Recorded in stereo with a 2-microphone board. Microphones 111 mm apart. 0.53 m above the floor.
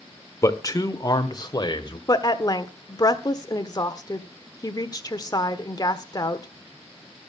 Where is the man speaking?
30° left (ahead or behind), 1.5 m; by 2.0 s 40° left (ahead or behind), 2.5 m.